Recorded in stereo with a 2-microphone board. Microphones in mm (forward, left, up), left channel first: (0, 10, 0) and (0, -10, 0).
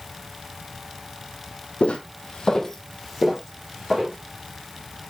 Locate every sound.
1.8 s footsteps: 70° left (ahead or behind), 0.9 m; by 4.2 s 20° right (ahead or behind), 2 m